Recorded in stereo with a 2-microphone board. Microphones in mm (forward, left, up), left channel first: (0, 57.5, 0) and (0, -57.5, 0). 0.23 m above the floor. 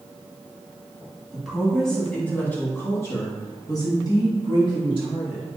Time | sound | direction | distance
1.3 | a woman speaking | centre (ahead or behind) | 1.6 m